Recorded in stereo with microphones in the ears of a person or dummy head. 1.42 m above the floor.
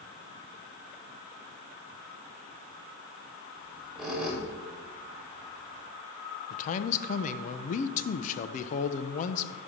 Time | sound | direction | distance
3.6 | a squeak | 5° right (ahead or behind) | 3 m
6.5 | a man speaking | 40° left (ahead or behind) | 0.7 m